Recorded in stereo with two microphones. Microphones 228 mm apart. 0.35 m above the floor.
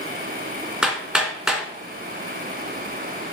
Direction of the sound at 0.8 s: 5° right (ahead or behind).